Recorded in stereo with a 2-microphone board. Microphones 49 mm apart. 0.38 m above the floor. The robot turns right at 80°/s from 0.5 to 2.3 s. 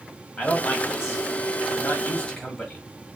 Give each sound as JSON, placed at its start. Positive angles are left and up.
{"t": 0.4, "sound": "a man speaking", "azimuth_deg": 25, "distance_m": 1.8}